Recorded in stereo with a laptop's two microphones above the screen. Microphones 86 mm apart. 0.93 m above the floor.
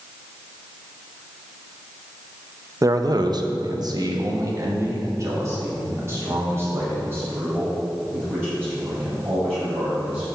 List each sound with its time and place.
2.8 s a man speaking: 40° right (ahead or behind), 0.6 m; by 10.2 s 25° right (ahead or behind), 5 m